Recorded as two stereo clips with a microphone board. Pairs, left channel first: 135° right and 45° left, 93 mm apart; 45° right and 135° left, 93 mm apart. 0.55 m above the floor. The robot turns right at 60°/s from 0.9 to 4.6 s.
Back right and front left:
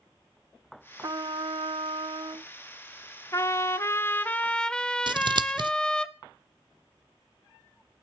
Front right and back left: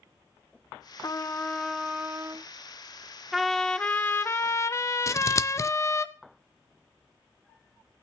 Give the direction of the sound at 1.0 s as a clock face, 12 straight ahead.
12 o'clock.